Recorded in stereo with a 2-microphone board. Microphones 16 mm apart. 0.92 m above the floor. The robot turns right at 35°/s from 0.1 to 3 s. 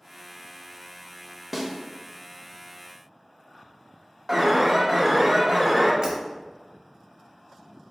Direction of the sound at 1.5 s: 15° right (ahead or behind).